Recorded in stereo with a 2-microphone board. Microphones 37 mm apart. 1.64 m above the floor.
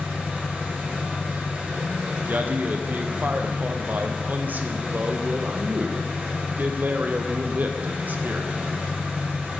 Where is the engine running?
60° right (ahead or behind), 1.4 m.